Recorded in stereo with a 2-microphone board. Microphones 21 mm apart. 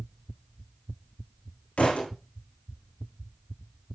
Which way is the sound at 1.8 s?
75° left (ahead or behind).